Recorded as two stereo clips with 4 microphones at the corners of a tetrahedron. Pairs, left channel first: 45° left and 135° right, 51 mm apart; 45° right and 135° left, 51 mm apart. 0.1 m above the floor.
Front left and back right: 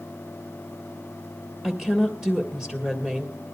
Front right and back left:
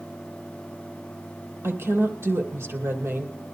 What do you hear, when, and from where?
1.6 s a woman speaking: 155° left, 2.5 m